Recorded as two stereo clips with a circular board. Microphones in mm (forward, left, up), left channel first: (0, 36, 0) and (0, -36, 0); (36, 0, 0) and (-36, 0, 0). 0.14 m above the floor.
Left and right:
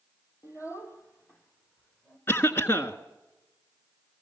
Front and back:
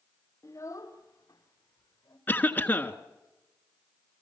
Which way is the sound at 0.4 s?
50° left.